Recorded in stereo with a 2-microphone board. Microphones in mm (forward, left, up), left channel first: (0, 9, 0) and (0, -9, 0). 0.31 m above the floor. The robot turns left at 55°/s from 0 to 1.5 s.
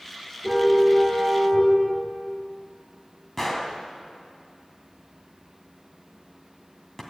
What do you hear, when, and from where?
0.4 s a car horn: 165° right, 6.5 m; by 1.7 s 140° left, 6.5 m
3.4 s a gunshot: 20° left (ahead or behind), 1.9 m